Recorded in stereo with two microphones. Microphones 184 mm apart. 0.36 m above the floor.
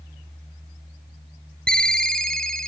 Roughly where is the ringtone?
Centre.